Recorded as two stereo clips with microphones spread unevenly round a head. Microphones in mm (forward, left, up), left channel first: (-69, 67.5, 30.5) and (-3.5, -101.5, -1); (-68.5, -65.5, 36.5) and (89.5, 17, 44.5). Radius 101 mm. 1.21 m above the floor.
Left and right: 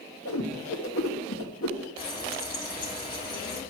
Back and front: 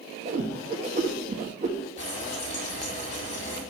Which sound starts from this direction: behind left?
Frying, at 2.0 s.